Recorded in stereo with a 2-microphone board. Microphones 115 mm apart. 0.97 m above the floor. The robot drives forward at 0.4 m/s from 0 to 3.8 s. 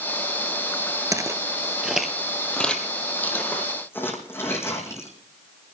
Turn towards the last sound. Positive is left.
turn(degrees=25)  # may be behind; listen again after turning